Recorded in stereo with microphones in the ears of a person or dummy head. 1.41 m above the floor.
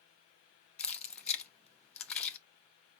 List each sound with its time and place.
0.8 s keys jangling: 10° left (ahead or behind), 0.7 m